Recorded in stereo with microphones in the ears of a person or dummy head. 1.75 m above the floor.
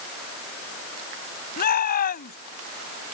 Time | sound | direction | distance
1.6 | a shout | 50° left (ahead or behind) | ?